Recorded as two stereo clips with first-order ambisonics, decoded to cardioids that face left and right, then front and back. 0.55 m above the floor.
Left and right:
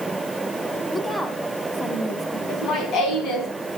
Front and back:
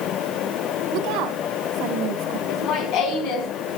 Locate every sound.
0.9 s a woman speaking: 170° left, 1.5 m
2.5 s laughter: 35° left, 4.5 m